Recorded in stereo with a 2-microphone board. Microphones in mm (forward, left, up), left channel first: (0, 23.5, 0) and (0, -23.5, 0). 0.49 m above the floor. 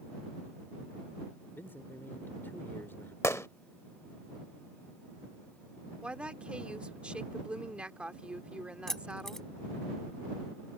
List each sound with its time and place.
1.6 s a man speaking: 50° left (ahead or behind)
3.2 s a gunshot: 75° left (ahead or behind)
6.0 s a woman speaking: 25° right (ahead or behind)
8.9 s keys jangling: 10° left (ahead or behind)